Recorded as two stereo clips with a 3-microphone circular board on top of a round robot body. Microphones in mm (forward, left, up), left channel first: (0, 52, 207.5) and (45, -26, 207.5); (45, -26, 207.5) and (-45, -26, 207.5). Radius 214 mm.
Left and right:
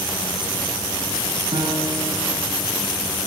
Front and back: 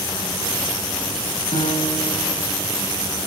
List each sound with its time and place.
1.5 s a piano: 20° right, 6.5 m